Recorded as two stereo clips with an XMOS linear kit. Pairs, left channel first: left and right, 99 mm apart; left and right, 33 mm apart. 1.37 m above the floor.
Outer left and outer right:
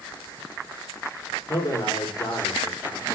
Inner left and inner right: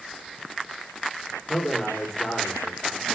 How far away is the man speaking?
About 4.5 m.